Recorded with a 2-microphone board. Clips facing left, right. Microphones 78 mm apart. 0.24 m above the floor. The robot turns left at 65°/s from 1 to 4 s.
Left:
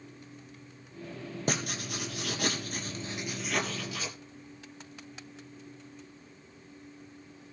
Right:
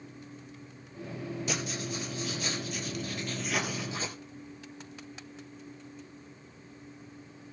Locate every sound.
1.5 s writing: 130° left, 3.5 m; by 4.2 s 35° right, 3.5 m